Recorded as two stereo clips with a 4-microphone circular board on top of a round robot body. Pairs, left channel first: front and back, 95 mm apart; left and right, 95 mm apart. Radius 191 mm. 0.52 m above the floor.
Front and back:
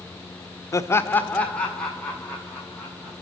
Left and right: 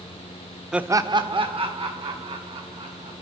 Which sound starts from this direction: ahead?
Laughter, at 0.7 s.